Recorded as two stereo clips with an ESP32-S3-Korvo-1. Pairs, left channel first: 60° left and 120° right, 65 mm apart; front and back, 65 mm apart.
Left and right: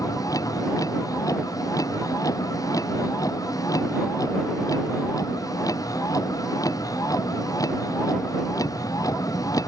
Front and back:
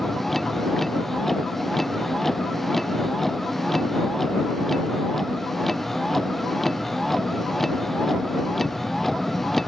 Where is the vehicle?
85° left.